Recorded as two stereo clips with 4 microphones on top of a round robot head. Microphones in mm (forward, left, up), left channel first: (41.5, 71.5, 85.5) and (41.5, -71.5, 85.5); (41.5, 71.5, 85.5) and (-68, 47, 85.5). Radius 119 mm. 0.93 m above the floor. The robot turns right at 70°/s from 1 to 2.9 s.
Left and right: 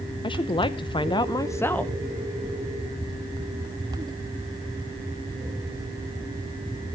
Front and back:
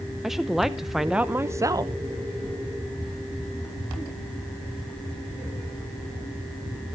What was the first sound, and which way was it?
A woman speaking, 105° left.